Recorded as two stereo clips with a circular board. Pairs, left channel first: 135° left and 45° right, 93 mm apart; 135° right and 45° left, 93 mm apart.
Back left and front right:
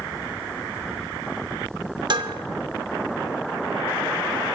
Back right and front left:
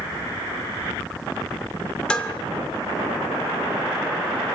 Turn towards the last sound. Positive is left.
turn(degrees=-55)